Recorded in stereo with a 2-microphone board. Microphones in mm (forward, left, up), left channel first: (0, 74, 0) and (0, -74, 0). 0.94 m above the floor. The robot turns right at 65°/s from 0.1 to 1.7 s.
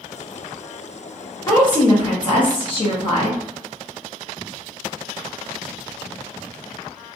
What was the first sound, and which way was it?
A woman speaking, 25° left (ahead or behind).